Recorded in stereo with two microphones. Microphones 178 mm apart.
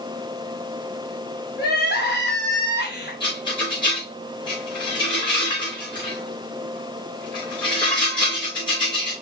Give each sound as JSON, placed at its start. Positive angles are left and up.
{"t": 1.6, "sound": "crying", "side_deg": 70, "distance_m": 3.5}
{"t": 3.2, "sound": "a rattle", "side_deg": 25, "distance_m": 4.0}